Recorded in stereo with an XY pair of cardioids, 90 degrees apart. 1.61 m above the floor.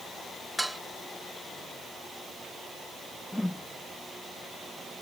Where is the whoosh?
10° left.